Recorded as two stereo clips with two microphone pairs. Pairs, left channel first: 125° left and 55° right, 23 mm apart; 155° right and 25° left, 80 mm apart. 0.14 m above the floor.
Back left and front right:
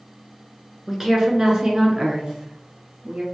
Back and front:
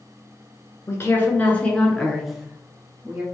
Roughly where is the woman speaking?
Behind right.